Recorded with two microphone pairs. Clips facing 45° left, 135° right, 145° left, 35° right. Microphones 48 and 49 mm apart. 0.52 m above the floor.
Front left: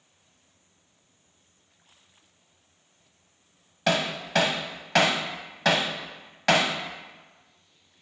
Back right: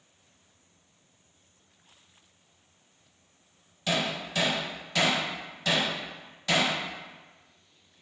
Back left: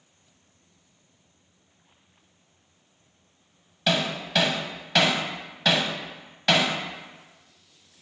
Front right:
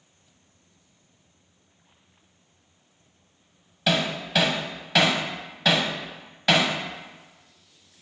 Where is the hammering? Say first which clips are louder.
Front left 4 dB, front right 1 dB; 55° left, 0.8 m.